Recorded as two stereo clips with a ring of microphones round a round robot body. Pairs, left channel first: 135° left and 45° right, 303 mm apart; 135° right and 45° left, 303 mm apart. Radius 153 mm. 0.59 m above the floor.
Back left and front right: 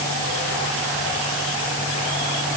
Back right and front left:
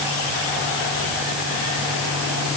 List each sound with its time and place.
Only background noise.